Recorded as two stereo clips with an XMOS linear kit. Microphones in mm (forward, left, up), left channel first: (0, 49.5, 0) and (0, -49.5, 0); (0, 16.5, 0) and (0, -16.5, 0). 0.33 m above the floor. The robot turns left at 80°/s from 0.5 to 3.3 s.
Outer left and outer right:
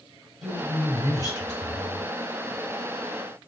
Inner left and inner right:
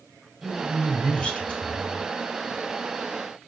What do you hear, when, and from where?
0.4 s a woman speaking: straight behind, 1.1 m; by 2.1 s 50° left, 1.1 m